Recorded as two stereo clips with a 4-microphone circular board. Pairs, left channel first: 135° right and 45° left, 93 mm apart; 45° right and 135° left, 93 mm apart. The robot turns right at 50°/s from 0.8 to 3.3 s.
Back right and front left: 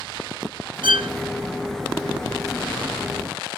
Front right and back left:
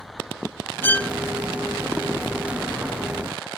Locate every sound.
0.8 s a violin: 20° left; by 1.1 s 35° left